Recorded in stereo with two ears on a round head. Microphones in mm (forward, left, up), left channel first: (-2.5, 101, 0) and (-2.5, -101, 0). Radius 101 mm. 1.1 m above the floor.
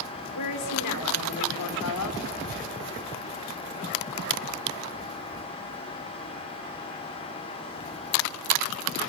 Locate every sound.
0.3 s a woman speaking: 85° left, 3 m